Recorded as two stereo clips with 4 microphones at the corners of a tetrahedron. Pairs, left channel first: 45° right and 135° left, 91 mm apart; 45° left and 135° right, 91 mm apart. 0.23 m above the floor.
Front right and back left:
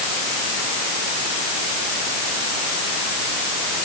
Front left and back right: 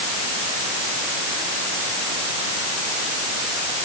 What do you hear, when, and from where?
Only background noise.